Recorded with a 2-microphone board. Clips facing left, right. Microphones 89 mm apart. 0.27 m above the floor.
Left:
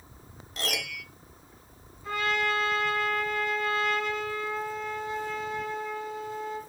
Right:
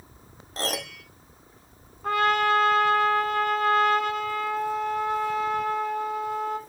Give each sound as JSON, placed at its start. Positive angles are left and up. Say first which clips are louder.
{"t": 0.6, "sound": "a piano", "louder": "right 4 dB", "side_deg": -35, "distance_m": 0.7}
{"t": 2.0, "sound": "a trumpet", "louder": "right 7 dB", "side_deg": -60, "distance_m": 1.1}